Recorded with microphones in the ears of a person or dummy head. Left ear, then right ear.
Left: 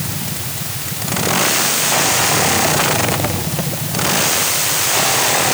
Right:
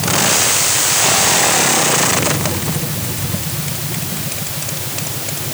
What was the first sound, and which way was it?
Only background noise.